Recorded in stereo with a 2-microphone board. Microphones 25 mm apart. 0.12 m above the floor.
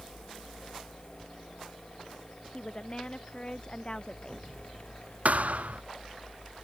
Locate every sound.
2.5 s a woman speaking: 40° left (ahead or behind); by 4.5 s 35° left (ahead or behind)
5.2 s a thud: 70° right (ahead or behind)